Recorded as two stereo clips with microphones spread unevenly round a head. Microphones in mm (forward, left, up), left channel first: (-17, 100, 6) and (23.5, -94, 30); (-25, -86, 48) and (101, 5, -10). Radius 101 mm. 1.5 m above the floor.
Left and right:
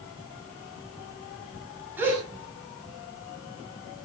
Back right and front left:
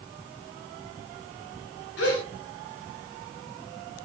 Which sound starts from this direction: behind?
A gasp, at 2.0 s.